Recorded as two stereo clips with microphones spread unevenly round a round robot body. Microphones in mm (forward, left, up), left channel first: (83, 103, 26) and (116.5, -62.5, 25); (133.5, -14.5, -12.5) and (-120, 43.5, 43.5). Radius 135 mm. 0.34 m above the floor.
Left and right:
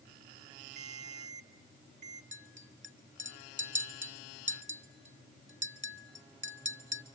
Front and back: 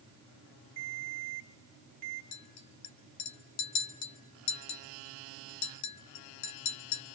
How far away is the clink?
About 1.9 m.